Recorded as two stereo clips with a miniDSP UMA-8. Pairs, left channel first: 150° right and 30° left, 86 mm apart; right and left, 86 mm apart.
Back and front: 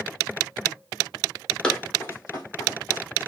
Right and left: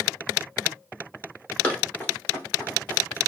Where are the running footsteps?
100° right, 1.3 m; by 3.0 s 155° right, 2.5 m.